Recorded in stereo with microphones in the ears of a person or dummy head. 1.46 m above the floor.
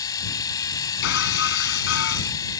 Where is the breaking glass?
70° left (ahead or behind).